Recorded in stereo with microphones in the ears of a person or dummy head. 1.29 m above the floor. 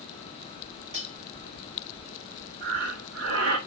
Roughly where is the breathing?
Right.